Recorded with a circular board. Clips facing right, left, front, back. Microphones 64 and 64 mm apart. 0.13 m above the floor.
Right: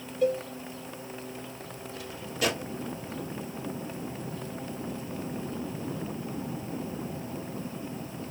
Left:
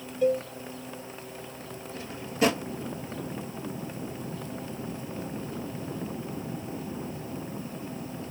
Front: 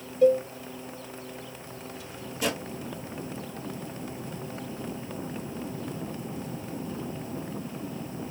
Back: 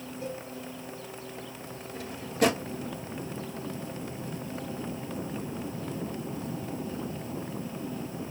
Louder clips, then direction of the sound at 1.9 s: Left 6 dB, back 10 dB; 145° left.